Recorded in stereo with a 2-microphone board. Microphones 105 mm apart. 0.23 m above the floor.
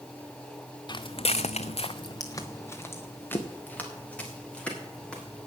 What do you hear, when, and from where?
0.9 s footsteps: 40° left (ahead or behind), 1.1 m; by 5.5 s 10° left (ahead or behind), 6 m